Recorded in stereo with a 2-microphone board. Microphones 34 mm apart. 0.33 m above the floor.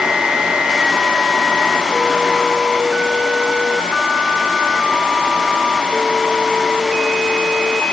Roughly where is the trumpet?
No trumpet in this recording.